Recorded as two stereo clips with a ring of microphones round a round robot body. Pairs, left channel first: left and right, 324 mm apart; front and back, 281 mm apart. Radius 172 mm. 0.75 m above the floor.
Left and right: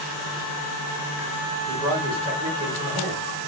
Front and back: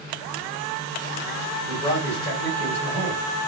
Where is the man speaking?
75° right, 1.3 m.